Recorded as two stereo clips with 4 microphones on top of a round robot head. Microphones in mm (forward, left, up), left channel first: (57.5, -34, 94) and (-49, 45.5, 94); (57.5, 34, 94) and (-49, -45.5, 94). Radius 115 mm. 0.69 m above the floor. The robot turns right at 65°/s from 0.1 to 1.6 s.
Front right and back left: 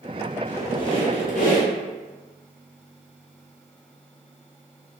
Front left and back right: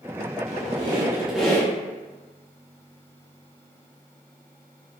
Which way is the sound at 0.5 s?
115° right.